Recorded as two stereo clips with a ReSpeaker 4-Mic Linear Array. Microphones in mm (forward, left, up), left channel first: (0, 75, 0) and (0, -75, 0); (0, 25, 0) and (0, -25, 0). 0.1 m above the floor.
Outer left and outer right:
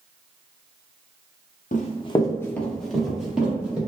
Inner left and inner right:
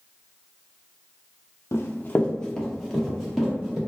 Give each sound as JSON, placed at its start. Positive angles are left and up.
{"t": 1.7, "sound": "running footsteps", "side_deg": 60, "distance_m": 0.8}